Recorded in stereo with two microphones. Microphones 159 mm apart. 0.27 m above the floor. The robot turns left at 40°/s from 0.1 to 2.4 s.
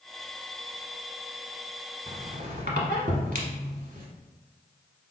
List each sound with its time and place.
2.1 s a squeak: 50° right (ahead or behind), 0.9 m; by 4.1 s 60° right (ahead or behind), 0.9 m